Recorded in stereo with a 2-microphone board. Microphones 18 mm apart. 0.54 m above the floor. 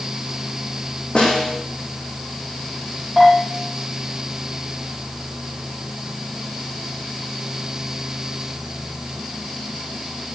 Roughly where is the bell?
Centre.